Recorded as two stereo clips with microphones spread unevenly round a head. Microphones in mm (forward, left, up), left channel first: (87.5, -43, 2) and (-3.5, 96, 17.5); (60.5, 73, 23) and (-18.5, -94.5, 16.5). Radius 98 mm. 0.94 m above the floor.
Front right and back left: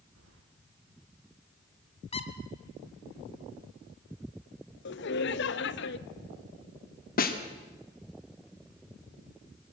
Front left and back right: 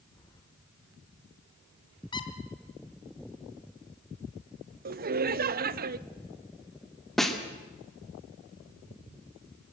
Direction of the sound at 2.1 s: Straight ahead.